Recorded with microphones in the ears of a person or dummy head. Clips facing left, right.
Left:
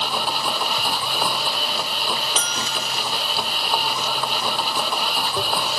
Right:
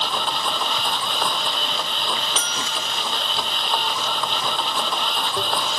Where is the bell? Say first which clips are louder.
Left 1 dB; 35° left (ahead or behind).